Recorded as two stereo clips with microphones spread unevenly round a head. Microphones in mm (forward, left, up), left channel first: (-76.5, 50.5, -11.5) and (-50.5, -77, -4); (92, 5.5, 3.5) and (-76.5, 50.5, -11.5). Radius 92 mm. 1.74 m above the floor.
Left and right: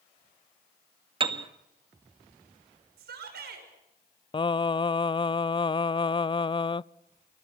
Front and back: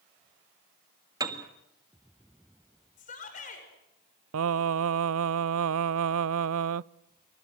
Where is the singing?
160° left, 0.5 m.